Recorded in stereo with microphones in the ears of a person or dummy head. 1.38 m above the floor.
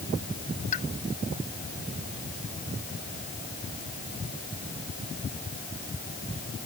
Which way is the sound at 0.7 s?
40° left (ahead or behind).